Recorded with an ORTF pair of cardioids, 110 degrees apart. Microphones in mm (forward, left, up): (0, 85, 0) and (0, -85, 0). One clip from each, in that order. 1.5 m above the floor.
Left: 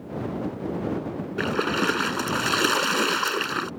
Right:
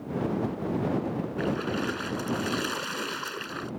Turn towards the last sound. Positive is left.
turn(degrees=60)